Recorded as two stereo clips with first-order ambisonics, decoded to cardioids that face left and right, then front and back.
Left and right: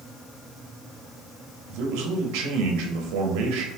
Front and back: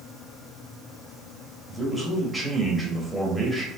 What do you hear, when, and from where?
1.7 s a man speaking: 90° right, 0.9 m